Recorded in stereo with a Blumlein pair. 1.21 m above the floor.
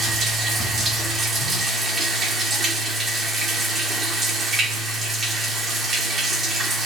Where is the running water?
20° right, 1.9 m.